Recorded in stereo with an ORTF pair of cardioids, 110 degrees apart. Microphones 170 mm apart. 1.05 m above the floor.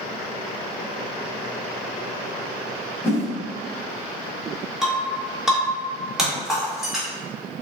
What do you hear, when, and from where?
3.0 s a whoosh: 15° left, 1.5 m
4.8 s breaking glass: 5° right, 1.5 m